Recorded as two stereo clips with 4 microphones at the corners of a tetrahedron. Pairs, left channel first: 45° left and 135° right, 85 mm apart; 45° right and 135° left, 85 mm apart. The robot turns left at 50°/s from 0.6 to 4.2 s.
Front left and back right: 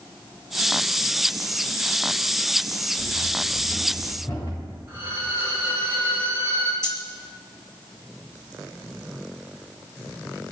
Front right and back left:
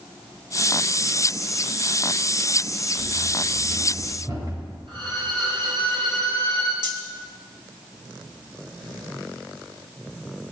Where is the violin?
160° left, 7 m.